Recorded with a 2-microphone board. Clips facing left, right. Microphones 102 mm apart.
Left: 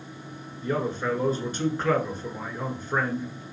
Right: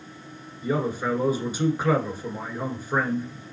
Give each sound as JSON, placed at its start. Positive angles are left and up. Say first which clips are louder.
{"t": 0.6, "sound": "a man speaking", "louder": "right 2 dB", "side_deg": -10, "distance_m": 1.3}